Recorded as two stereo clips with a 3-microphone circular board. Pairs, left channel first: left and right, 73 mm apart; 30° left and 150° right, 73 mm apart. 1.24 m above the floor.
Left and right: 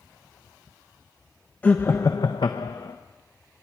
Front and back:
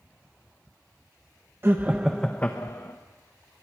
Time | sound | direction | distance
1.6 | laughter | 160° left | 1.2 m